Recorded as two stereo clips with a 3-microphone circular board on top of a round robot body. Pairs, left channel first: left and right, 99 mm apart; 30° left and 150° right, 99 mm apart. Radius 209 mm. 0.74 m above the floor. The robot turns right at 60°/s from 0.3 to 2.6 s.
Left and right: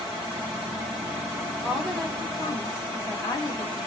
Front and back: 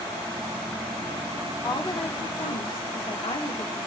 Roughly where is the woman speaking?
Ahead.